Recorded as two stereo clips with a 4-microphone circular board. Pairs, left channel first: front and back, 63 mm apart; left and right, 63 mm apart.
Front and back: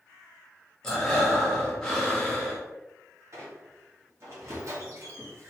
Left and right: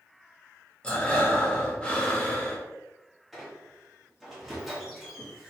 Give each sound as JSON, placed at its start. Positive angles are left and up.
{"t": 0.8, "sound": "breathing", "azimuth_deg": 55, "distance_m": 0.7}
{"t": 3.3, "sound": "a squeak", "azimuth_deg": -175, "distance_m": 1.1}